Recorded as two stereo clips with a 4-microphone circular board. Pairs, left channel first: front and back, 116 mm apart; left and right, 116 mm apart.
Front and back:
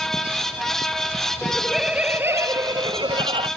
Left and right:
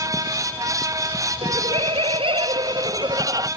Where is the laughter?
80° right; by 3.5 s 145° right.